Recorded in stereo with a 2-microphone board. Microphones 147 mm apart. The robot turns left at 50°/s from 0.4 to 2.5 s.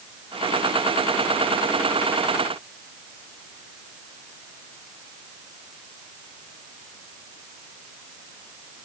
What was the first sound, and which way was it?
Only background noise.